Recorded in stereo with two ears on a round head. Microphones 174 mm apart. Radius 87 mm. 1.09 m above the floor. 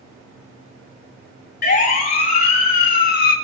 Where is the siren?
50° left (ahead or behind), 4.5 m.